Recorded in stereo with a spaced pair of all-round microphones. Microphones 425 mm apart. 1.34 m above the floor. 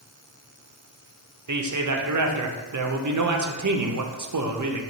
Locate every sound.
1.5 s a man speaking: 45° right (ahead or behind), 0.5 m